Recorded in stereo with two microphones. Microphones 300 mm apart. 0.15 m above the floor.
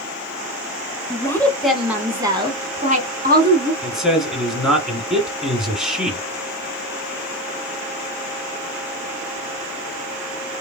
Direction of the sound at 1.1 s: 10° left (ahead or behind).